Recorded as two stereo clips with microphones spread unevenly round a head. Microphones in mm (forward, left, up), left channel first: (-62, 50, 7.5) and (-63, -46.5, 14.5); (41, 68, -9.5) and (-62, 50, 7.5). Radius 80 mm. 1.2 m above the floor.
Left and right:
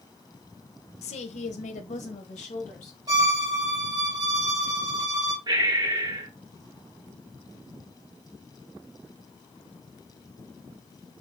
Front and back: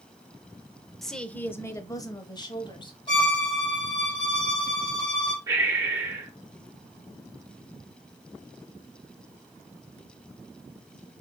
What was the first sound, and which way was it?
A woman speaking, 100° left.